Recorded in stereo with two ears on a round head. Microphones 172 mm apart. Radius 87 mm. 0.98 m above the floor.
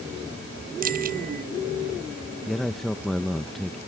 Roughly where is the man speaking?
Centre.